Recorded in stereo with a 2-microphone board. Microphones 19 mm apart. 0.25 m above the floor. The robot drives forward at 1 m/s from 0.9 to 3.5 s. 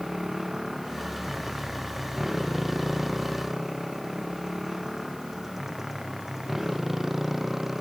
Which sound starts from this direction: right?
A motorcycle, at 0.0 s.